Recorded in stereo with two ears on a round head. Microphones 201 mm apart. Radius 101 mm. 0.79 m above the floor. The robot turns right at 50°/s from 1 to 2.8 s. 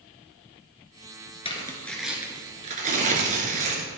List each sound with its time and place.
1.4 s tearing paper: 150° left, 1.8 m; by 3.9 s 140° right, 1.8 m